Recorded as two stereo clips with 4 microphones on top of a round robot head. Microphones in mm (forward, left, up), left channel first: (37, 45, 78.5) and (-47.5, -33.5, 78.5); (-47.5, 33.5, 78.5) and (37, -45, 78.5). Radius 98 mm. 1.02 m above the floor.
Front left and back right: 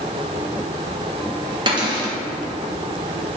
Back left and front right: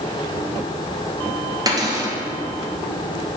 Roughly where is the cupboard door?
Right.